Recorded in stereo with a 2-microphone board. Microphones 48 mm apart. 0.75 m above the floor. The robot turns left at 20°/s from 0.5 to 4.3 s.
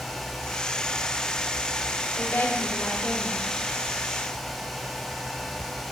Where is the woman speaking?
30° left (ahead or behind), 4 m; by 3.5 s 55° left (ahead or behind), 4 m.